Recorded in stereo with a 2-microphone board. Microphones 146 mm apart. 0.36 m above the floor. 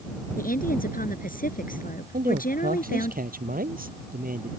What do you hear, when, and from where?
0.4 s a woman speaking: 80° left
2.1 s a man speaking: 85° right